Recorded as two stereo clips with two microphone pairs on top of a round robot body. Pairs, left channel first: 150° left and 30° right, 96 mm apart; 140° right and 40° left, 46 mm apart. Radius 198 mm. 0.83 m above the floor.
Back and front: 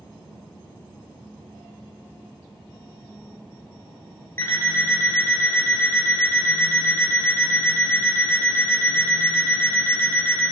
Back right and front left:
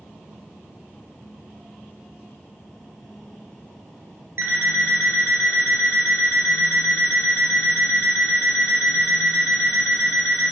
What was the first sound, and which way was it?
An alarm clock, 85° left.